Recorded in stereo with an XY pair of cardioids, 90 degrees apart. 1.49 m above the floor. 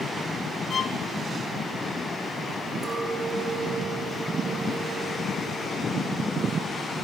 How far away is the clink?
About 3.5 m.